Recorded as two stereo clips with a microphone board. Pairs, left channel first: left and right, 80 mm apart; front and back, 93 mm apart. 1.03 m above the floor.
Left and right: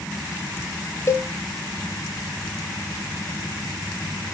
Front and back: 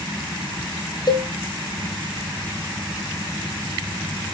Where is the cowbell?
35° left, 0.5 m.